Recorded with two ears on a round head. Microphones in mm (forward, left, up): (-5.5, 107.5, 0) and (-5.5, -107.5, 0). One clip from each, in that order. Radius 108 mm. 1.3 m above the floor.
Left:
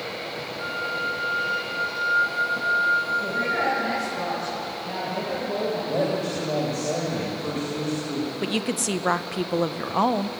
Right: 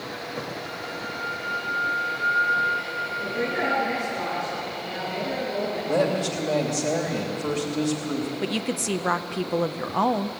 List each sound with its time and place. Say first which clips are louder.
0.6 s a flute: left 6 dB; 65° left (ahead or behind), 6.5 m
3.2 s a woman speaking: left 2 dB; 35° left (ahead or behind), 9.5 m
5.9 s a woman speaking: right 5 dB; 55° right (ahead or behind), 3 m
8.4 s a woman speaking: left 3 dB; 5° left (ahead or behind), 0.6 m